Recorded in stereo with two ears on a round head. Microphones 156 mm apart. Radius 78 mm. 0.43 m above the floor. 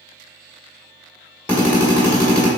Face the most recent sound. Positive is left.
turn(degrees=10)  # may be behind; listen again after turning